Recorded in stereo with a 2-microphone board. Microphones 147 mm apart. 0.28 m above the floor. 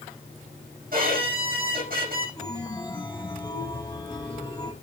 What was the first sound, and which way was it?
A violin, 70° right (ahead or behind).